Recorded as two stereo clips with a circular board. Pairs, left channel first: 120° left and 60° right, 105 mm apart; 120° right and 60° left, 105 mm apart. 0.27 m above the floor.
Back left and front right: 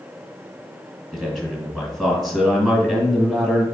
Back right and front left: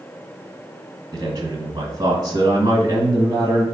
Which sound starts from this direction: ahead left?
A man speaking, at 1.1 s.